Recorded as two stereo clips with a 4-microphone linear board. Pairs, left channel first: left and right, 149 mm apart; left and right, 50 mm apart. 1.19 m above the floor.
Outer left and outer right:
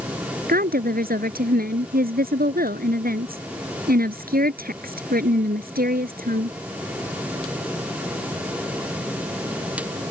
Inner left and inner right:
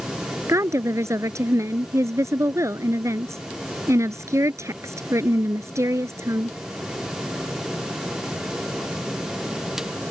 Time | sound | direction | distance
0.5 | a woman speaking | 85° right | ?